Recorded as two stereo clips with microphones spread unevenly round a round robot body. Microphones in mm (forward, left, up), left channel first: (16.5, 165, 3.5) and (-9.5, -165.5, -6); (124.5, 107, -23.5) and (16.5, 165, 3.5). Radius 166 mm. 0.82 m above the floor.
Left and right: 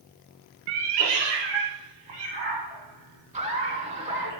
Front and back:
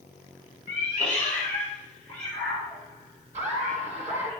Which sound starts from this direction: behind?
Laughter, at 3.3 s.